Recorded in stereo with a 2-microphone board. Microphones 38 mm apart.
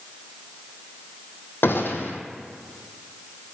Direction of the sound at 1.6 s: 80° left.